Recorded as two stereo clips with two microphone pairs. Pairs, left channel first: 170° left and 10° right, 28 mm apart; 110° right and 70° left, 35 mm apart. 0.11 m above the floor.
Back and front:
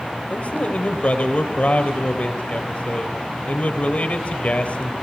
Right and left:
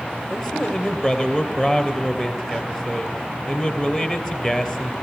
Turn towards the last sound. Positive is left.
turn(degrees=160)